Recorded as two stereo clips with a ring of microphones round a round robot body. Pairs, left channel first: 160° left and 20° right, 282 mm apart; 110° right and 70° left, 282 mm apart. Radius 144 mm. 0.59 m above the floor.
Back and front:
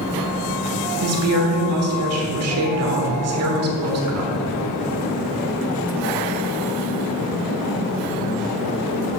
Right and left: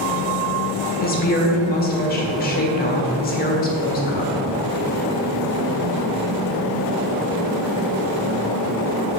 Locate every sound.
1.0 s a woman speaking: 55° right, 1.4 m